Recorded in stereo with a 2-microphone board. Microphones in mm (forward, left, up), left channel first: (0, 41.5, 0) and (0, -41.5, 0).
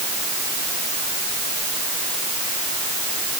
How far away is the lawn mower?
I don't hear a lawn mower.